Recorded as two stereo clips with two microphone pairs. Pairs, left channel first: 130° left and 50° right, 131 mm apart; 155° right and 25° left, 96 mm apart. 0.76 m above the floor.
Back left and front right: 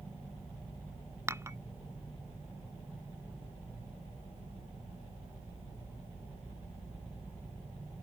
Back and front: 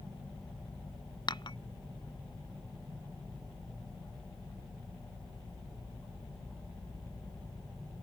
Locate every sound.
1.3 s dishes clattering: 120° right